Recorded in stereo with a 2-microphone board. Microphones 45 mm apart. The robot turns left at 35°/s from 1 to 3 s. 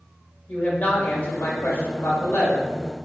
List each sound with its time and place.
0.5 s a woman speaking: 130° left, 2.0 m; by 2.6 s 70° left, 2.0 m